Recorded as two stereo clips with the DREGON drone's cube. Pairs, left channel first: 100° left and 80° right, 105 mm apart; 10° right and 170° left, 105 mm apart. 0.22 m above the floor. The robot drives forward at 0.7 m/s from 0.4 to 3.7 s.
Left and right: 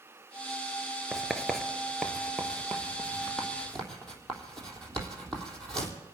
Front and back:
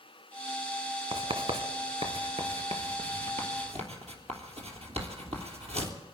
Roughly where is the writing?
Behind.